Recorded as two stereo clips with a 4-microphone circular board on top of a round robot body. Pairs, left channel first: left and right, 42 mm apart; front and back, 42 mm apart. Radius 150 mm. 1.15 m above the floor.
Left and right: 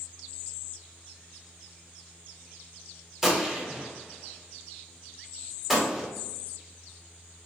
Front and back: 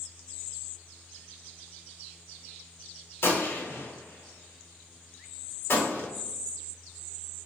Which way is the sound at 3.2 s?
10° right.